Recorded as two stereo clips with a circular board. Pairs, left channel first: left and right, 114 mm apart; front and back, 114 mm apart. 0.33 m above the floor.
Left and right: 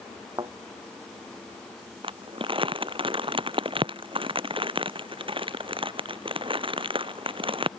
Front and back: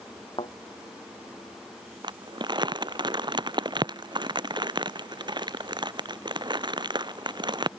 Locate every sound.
0.4 s a thud: 40° right
2.0 s crumpling: 130° right